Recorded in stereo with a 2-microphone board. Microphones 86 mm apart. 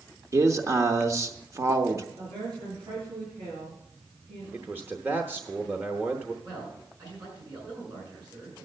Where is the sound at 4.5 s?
25° right (ahead or behind), 0.8 m.